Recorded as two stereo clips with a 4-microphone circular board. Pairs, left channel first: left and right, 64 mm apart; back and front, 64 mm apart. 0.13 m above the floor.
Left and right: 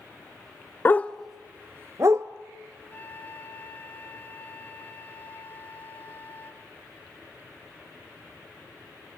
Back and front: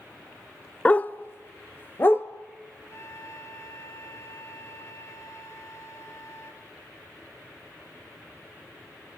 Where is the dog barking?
120° left, 0.5 m; by 2.3 s 125° right, 1.0 m.